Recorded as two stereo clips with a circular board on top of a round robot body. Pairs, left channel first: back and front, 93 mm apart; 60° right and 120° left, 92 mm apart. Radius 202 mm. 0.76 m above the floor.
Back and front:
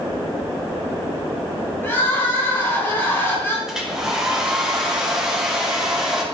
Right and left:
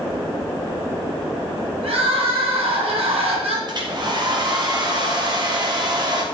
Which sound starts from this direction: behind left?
Crying, at 1.8 s.